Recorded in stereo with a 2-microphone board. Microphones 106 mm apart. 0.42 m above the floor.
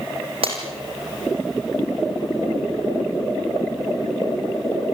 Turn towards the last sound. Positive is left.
turn(degrees=-65)  # may be behind; listen again after turning